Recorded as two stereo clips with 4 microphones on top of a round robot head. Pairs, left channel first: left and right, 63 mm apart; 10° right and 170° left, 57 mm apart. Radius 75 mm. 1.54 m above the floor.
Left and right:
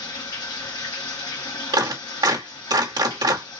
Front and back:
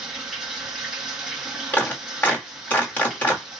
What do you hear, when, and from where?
0.0 s running water: 90° left, 2 m
1.7 s a clap: 75° right, 1.5 m